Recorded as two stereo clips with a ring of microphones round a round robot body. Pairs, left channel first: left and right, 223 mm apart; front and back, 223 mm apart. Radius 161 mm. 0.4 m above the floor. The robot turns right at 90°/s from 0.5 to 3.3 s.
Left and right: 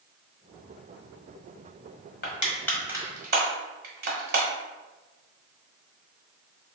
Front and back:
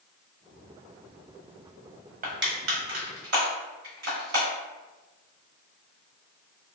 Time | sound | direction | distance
2.2 | crushing | 130° left | 1.2 m